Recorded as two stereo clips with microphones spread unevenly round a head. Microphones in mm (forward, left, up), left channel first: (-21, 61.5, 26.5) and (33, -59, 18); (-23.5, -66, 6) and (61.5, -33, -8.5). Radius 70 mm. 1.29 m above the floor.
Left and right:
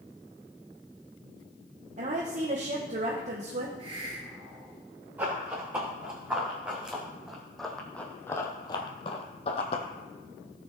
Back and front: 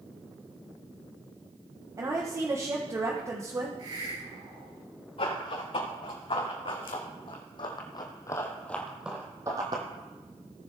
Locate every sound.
2.0 s a woman speaking: 30° right, 1.3 m
3.8 s a hiss: 10° right, 5.5 m
5.2 s running footsteps: 145° right, 5.5 m; by 9.8 s 75° left, 2 m